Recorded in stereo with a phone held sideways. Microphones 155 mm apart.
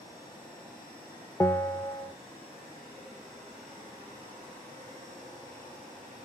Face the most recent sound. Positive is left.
turn(degrees=15)  # may be behind; listen again after turning